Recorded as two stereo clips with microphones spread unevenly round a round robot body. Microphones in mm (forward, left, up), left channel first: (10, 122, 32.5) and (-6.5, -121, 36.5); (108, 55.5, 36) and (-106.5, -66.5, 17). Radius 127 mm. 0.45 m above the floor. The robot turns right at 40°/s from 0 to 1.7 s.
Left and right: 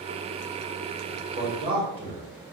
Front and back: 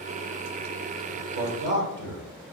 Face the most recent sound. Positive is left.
turn(degrees=-155)